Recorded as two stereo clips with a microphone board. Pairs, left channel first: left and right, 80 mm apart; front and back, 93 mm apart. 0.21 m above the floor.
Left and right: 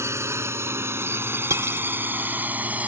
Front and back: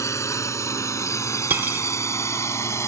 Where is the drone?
45° right; by 2.9 s 30° right.